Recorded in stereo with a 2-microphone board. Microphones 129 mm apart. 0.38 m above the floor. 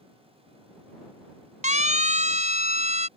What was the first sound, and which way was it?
A siren, 70° right (ahead or behind).